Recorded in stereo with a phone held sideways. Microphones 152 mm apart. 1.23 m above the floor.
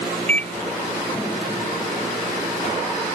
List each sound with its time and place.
0.3 s a microwave: 10° left (ahead or behind)